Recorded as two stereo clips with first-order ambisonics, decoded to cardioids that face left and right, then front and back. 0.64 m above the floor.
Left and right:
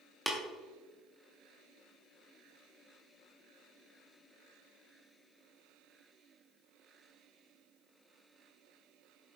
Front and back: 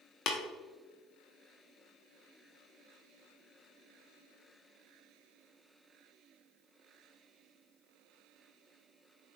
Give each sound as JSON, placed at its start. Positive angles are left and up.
{"t": 0.3, "sound": "tapping", "azimuth_deg": -5, "distance_m": 1.0}